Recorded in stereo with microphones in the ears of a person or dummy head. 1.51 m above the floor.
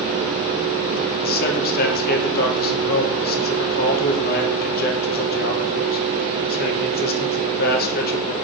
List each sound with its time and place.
1.2 s a man speaking: 50° left (ahead or behind), 0.8 m